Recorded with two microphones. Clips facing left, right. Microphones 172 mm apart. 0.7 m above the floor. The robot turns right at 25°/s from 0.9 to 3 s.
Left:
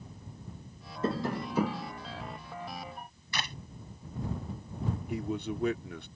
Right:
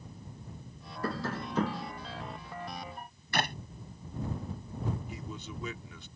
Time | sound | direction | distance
1.0 | tapping | 20° left (ahead or behind) | ?
3.3 | a clap | 55° right (ahead or behind) | ?
5.1 | a man speaking | 60° left (ahead or behind) | ?